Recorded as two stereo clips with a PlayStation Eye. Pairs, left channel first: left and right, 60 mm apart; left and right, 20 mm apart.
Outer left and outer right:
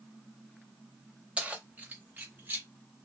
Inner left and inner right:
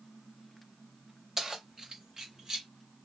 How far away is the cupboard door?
I don't hear a cupboard door.